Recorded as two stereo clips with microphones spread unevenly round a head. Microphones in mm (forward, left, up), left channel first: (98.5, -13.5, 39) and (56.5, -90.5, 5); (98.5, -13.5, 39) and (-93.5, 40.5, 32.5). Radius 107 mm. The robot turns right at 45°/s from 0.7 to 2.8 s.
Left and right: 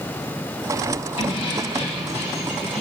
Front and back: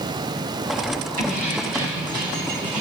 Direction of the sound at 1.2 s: 115° left.